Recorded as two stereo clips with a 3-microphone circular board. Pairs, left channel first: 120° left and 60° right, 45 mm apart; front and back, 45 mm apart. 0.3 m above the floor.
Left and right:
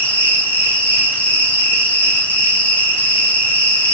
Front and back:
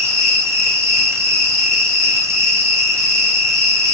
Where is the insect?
Straight behind, 1.6 m.